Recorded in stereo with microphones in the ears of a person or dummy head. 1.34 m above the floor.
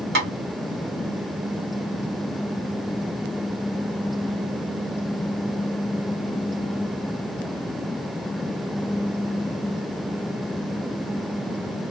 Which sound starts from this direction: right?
Tapping, at 0.1 s.